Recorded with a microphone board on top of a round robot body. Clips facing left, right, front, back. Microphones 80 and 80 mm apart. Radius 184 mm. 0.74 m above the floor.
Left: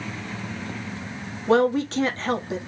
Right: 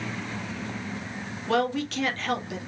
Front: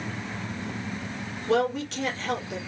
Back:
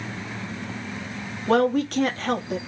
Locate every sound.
1.5 s a woman speaking: 145° left, 1.6 m